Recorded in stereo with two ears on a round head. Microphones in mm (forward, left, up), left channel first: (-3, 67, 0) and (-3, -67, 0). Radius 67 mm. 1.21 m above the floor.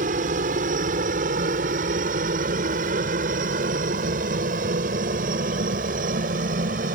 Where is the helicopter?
55° right (ahead or behind); by 7.0 s 60° right (ahead or behind).